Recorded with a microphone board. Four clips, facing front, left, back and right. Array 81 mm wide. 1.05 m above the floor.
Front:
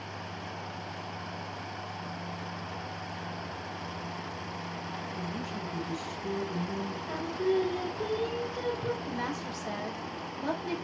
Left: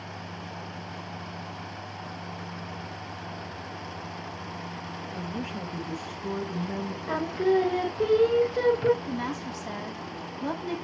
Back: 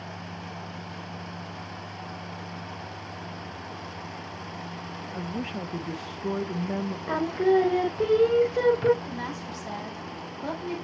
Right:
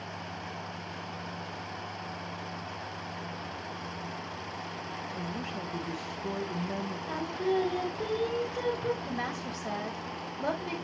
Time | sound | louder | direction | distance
5.1 | a woman speaking | left 4 dB, back 7 dB | 175° left | 1.0 m
7.1 | singing | left 6 dB, back 7 dB | 150° left | 0.5 m
9.0 | a woman speaking | left 3 dB, even | 85° right | 6 m